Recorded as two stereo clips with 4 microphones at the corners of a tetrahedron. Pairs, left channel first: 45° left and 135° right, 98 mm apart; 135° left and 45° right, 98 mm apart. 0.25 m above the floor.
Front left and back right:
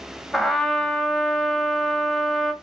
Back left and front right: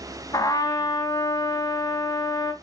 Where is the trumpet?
135° left, 1.3 m.